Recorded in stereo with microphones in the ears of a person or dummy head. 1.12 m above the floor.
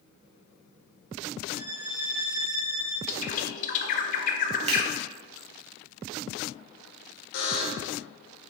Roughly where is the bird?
Left.